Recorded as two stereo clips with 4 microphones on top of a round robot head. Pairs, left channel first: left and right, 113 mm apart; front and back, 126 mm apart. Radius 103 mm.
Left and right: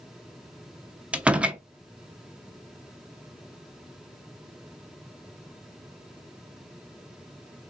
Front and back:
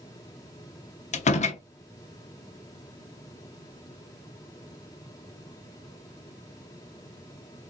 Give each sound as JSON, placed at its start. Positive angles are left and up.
{"t": 1.1, "sound": "a door slam", "azimuth_deg": -10, "distance_m": 0.7}